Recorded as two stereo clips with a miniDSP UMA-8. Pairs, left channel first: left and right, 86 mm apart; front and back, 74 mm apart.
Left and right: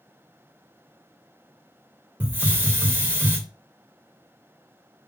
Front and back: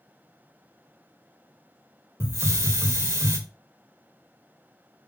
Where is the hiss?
150° right, 0.8 m.